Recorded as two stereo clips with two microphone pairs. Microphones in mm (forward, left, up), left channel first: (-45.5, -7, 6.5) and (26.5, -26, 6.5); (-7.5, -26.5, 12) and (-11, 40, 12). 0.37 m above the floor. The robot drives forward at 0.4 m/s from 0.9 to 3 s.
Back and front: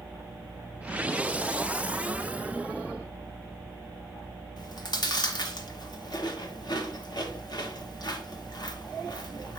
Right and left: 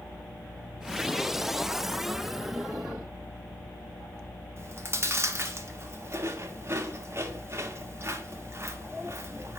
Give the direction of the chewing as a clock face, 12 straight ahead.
7 o'clock.